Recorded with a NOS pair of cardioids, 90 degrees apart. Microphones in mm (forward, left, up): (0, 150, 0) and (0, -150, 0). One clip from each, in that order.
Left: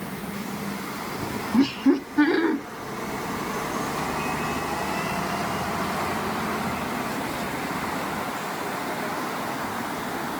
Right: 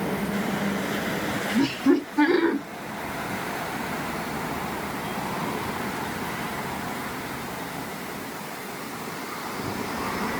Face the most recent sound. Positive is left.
turn(degrees=0)